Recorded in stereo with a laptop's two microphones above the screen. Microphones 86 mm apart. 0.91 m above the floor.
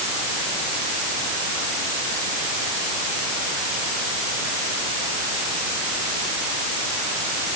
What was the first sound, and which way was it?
Only background noise.